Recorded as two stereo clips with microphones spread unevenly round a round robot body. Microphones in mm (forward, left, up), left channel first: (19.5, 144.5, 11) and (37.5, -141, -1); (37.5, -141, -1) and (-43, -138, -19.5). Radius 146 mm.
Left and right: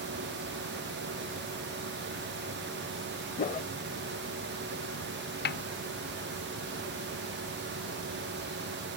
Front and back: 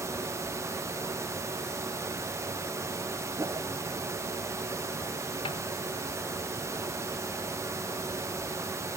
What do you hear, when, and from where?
3.4 s a whoosh: 150° left
5.5 s a snare drum: 40° left